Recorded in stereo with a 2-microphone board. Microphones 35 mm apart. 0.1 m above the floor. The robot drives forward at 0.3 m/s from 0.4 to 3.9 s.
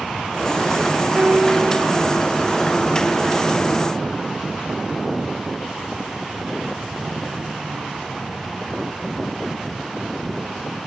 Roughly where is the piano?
Right.